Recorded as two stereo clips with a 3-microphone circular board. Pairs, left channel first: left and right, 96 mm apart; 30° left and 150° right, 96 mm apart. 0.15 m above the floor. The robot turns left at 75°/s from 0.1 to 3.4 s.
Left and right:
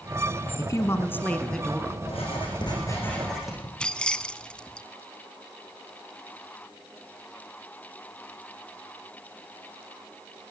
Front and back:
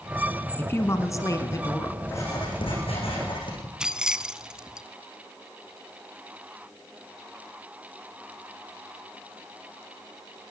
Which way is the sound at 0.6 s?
85° left.